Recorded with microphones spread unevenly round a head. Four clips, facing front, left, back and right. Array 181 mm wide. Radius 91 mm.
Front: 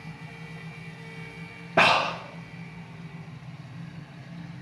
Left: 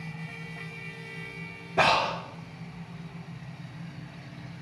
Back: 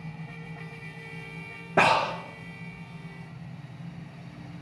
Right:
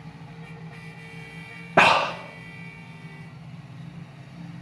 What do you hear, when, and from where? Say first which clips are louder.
1.8 s breathing: right 5 dB, even; 90° right, 0.6 m